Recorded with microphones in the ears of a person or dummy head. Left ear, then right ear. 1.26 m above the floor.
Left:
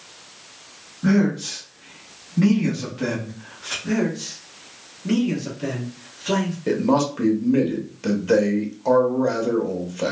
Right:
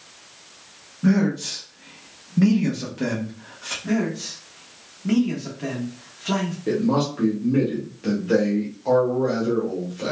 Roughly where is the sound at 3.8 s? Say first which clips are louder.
Left 1 dB; centre.